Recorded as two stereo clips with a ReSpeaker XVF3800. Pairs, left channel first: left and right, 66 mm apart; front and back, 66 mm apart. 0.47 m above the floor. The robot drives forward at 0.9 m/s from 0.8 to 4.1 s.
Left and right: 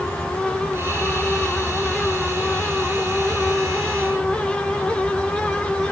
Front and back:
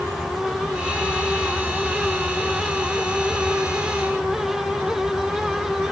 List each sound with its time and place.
Only background noise.